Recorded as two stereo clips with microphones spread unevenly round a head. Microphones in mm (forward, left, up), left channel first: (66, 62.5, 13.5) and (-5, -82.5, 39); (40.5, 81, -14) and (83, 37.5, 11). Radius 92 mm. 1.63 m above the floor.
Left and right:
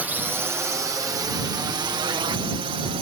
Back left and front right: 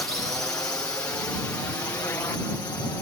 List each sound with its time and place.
0.0 s a drone: 160° left; by 3.0 s 175° right